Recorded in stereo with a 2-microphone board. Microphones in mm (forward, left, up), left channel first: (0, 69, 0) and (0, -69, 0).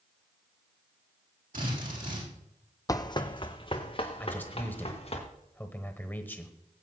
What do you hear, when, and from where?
1.5 s a drill: 85° right, 6 m
2.9 s running footsteps: 25° left (ahead or behind), 0.6 m; by 5.2 s 45° left (ahead or behind), 3 m
4.2 s a man speaking: 15° left (ahead or behind), 1.1 m